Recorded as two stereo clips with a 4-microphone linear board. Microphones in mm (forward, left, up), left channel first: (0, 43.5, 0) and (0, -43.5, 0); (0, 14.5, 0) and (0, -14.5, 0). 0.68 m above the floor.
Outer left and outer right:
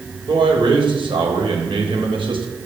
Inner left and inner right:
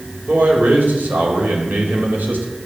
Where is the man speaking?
70° right (ahead or behind), 3.5 m.